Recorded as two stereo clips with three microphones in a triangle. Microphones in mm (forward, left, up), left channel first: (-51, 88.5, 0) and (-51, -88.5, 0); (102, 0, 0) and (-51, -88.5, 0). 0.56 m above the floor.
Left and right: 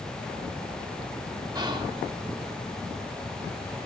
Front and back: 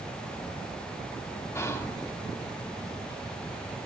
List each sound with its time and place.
1.6 s whispering: 40° right, 0.9 m